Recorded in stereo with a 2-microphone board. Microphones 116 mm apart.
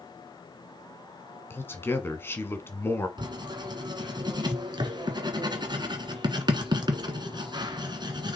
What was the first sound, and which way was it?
A man speaking, 20° left (ahead or behind).